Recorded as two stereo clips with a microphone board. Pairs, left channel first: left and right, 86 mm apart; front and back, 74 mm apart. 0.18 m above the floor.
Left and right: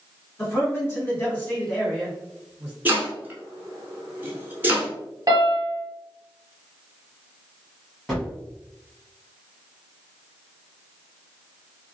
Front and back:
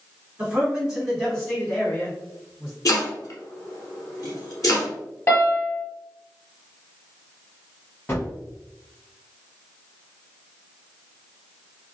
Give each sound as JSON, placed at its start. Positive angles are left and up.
{"t": 0.4, "sound": "a man speaking", "azimuth_deg": 120, "distance_m": 1.6}
{"t": 2.9, "sound": "chopping", "azimuth_deg": -25, "distance_m": 1.0}
{"t": 5.3, "sound": "a piano", "azimuth_deg": -40, "distance_m": 1.4}
{"t": 8.1, "sound": "a gunshot", "azimuth_deg": 5, "distance_m": 1.2}